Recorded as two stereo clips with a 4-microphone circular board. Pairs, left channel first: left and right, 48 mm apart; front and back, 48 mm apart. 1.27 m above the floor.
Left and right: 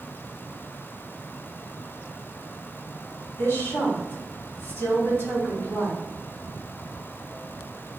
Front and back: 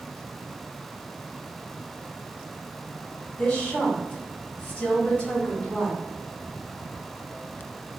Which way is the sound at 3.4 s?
60° left.